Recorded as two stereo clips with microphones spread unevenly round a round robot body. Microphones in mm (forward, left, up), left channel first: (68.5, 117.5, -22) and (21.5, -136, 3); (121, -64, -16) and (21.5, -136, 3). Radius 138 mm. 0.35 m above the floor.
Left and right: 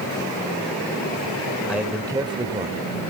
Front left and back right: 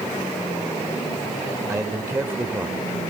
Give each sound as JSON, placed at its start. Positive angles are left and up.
{"t": 1.7, "sound": "a man speaking", "azimuth_deg": 160, "distance_m": 1.3}